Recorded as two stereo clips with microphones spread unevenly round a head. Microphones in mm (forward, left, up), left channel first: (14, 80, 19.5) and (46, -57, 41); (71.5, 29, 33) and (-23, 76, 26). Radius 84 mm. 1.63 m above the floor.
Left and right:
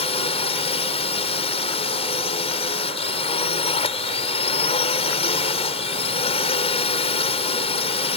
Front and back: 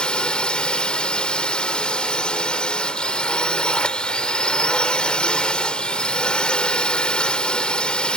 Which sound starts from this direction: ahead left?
A drone, at 0.0 s.